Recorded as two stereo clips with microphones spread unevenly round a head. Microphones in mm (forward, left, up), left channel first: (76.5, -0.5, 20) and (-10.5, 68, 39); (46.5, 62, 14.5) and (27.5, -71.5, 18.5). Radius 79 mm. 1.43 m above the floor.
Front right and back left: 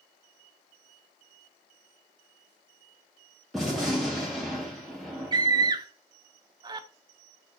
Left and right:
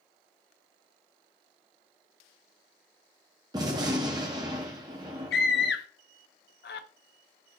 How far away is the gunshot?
About 0.7 m.